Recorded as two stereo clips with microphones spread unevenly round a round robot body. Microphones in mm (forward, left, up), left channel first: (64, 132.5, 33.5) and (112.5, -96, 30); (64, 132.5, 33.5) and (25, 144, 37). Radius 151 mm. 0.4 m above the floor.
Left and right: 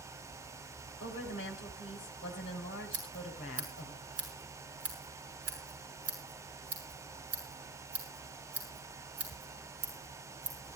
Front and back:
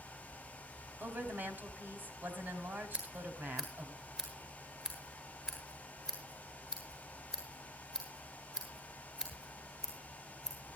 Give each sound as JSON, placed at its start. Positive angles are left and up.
{"t": 1.0, "sound": "a woman speaking", "azimuth_deg": 155, "distance_m": 2.0}
{"t": 2.9, "sound": "scissors", "azimuth_deg": -100, "distance_m": 6.0}